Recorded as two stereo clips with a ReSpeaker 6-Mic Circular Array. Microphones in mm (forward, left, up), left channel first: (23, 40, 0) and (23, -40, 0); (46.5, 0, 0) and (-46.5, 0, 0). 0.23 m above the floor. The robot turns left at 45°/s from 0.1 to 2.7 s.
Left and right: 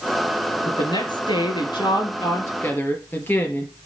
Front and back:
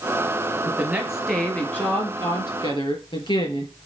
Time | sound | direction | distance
0.7 | a woman speaking | 115° left | 3.5 m